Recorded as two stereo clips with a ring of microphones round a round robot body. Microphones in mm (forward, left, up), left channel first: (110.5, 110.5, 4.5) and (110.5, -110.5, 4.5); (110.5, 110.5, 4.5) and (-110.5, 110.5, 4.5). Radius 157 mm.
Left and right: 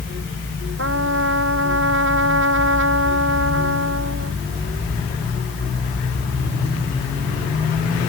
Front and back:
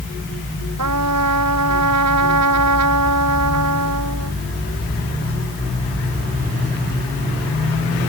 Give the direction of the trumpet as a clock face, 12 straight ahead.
5 o'clock.